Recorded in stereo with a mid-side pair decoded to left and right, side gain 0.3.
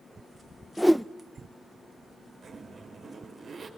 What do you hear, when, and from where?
0.8 s a whoosh: 5° left, 0.5 m
2.4 s a zipper: 65° right, 6 m